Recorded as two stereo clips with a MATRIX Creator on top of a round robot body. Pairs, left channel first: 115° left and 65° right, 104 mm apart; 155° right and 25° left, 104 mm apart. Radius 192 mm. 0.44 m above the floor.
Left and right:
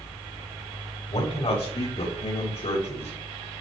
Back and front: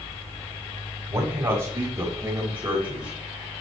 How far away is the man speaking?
About 4 m.